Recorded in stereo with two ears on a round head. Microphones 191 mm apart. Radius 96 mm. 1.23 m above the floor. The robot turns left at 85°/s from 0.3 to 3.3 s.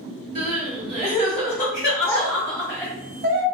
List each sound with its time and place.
0.3 s crying: 140° right, 1.3 m; by 2.9 s 5° left, 1.3 m
2.1 s a child speaking: 10° left (ahead or behind), 0.7 m; by 3.4 s 45° right (ahead or behind), 0.7 m